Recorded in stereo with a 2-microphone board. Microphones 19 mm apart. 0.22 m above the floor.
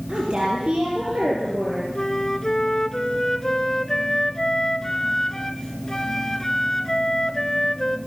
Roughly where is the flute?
Left.